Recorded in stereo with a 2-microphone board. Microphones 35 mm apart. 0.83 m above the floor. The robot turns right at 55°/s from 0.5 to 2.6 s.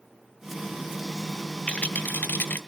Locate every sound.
1.7 s a rattle: 40° left, 0.8 m; by 2.6 s 90° left, 0.8 m